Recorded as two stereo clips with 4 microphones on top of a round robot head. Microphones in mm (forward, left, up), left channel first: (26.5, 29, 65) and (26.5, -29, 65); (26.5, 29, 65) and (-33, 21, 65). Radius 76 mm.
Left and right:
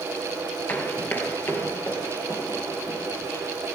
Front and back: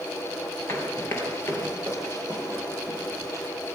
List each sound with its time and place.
0.7 s running footsteps: 40° left, 1.9 m; by 3.5 s 50° left, 3 m